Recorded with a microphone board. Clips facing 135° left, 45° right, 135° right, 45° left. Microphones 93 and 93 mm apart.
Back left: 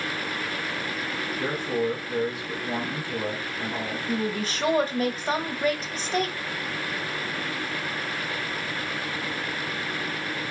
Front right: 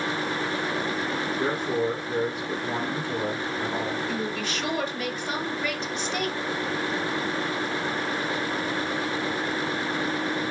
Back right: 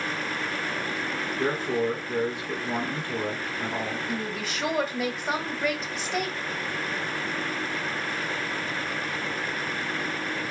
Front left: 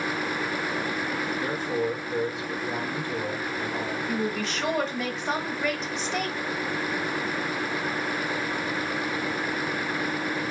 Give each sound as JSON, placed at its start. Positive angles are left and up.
{"t": 1.4, "sound": "a man speaking", "azimuth_deg": -105, "distance_m": 1.9}
{"t": 4.1, "sound": "a woman speaking", "azimuth_deg": 140, "distance_m": 1.1}